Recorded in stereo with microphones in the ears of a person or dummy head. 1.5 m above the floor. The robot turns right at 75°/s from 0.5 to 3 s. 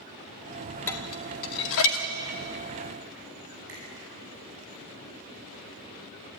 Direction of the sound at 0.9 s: 10° left (ahead or behind).